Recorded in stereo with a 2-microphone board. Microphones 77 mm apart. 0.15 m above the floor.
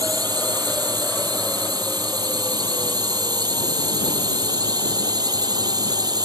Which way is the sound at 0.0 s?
65° right (ahead or behind).